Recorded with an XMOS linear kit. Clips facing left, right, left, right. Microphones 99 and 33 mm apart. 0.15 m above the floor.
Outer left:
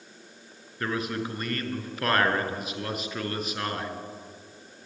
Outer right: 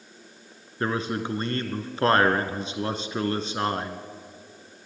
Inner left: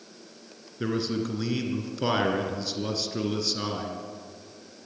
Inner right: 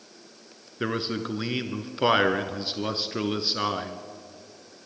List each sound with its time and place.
0.8 s a man speaking: 30° right (ahead or behind), 1.7 m